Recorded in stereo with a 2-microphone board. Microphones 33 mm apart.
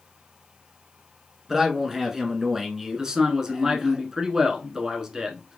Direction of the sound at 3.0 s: 20° right (ahead or behind).